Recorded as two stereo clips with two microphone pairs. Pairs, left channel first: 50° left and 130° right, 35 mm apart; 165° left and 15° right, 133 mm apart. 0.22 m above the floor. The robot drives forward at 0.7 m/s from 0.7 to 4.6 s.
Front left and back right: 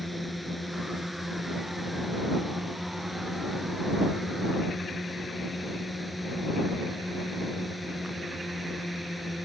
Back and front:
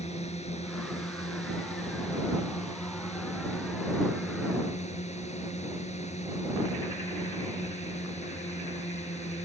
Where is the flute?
I don't hear a flute.